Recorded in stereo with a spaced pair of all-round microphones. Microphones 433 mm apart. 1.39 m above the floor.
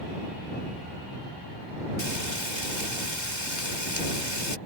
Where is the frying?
85° left.